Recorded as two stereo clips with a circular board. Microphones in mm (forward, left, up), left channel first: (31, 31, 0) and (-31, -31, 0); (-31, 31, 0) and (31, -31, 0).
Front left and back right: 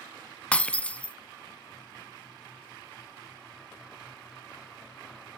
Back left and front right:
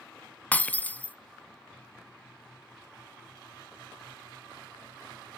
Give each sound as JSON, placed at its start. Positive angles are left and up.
{"t": 0.5, "sound": "breaking glass", "azimuth_deg": 95, "distance_m": 0.5}